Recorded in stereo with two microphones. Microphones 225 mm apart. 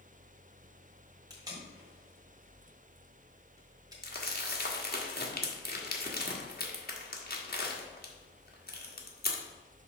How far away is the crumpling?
About 1.3 m.